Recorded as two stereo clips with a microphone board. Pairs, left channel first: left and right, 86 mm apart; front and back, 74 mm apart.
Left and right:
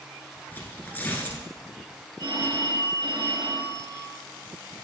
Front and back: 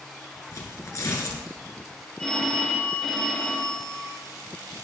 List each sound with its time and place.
0.5 s tearing paper: 30° left, 1.7 m
2.2 s a phone ringing: 80° right, 2.5 m